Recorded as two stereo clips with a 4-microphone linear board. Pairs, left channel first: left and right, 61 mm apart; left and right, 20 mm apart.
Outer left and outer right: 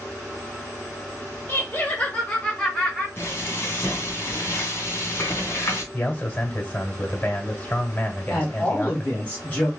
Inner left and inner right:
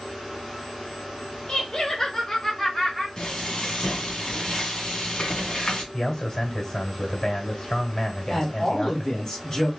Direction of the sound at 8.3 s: 20° left (ahead or behind).